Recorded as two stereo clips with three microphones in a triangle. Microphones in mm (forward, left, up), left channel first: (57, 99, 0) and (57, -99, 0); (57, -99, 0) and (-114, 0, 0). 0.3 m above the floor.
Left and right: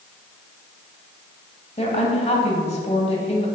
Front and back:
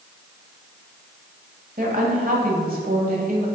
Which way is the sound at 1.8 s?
130° left.